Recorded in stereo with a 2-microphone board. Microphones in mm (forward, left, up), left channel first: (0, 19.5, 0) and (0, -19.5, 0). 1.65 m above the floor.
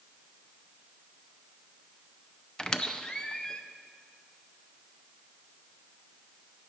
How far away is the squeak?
About 0.5 m.